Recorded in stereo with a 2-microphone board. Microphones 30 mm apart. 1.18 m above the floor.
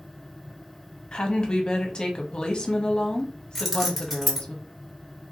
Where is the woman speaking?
25° left (ahead or behind), 0.7 m.